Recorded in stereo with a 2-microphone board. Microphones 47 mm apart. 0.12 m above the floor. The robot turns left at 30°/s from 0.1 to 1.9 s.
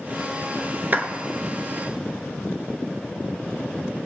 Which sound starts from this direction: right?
A clap, at 0.9 s.